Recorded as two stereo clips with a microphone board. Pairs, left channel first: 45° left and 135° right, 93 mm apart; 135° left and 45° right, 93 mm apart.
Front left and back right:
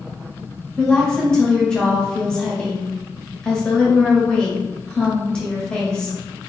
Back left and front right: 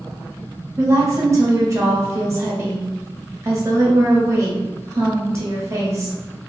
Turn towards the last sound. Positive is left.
turn(degrees=-30)